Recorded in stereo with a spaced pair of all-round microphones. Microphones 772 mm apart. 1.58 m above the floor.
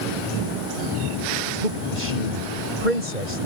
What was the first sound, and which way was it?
A man speaking, 75° right (ahead or behind).